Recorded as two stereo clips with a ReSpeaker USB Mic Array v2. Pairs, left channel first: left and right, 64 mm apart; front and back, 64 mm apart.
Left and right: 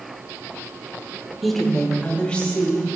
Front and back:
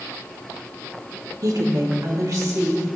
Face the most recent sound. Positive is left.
turn(degrees=160)